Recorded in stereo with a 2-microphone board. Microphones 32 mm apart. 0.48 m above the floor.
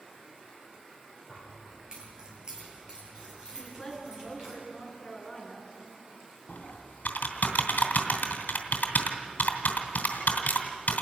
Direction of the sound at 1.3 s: 25° right (ahead or behind).